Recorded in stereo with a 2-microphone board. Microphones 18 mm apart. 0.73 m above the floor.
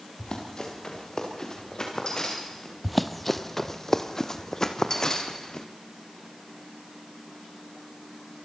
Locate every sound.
0.2 s running footsteps: 45° left (ahead or behind), 6 m; by 2.8 s 30° left (ahead or behind), 8 m
2.8 s running footsteps: 5° right (ahead or behind), 1.2 m; by 5.7 s 35° left (ahead or behind), 3 m